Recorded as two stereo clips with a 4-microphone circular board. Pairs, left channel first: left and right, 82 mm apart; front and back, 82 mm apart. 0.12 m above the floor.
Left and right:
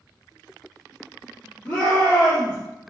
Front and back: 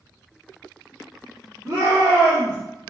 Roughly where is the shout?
Behind left.